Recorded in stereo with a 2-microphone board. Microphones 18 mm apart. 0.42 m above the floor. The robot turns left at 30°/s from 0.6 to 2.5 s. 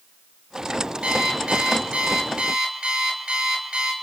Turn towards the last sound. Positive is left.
turn(degrees=-120)